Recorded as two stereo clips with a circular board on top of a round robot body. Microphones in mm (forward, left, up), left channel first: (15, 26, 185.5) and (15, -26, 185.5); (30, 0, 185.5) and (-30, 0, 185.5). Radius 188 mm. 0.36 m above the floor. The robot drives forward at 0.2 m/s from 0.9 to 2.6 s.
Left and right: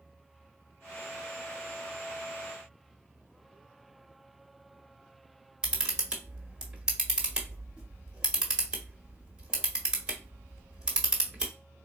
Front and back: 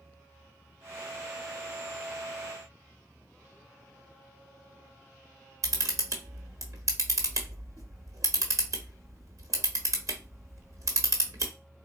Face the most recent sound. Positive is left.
turn(degrees=-160)